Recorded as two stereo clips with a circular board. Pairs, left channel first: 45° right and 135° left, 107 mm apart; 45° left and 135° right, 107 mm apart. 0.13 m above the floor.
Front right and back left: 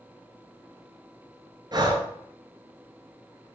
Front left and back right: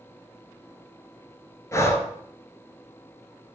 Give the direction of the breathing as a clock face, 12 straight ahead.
9 o'clock.